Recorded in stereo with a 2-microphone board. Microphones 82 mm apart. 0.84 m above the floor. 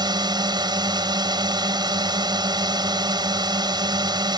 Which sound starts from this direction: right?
A drone, at 0.0 s.